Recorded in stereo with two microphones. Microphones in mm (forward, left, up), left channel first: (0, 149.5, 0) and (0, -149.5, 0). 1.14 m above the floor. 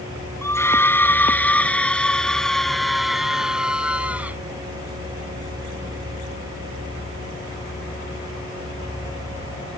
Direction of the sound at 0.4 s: 10° left (ahead or behind).